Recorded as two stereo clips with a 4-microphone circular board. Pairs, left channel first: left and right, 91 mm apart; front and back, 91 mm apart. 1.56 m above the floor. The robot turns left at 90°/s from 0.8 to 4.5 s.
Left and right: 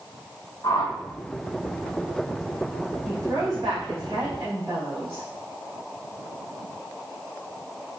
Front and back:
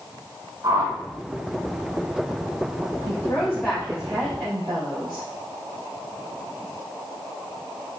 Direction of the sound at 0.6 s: 135° left.